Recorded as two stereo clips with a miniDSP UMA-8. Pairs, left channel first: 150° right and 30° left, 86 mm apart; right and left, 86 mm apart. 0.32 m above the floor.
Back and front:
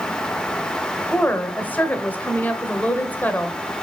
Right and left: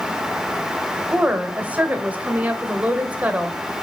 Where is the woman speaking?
155° left, 1.2 m.